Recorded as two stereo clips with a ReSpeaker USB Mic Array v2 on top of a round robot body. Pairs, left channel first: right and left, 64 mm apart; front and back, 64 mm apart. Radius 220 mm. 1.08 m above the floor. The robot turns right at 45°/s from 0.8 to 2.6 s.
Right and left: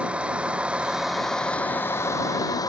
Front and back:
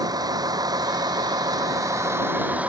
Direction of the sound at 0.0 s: 165° left.